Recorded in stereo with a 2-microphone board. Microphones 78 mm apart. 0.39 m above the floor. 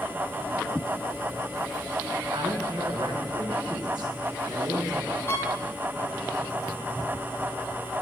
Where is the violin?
35° left (ahead or behind), 2 m.